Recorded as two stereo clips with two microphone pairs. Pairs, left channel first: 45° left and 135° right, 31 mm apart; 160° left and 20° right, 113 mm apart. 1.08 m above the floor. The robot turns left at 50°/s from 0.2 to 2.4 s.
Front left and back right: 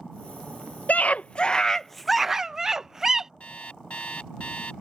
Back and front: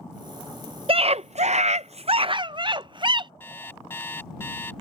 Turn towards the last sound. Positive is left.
turn(degrees=85)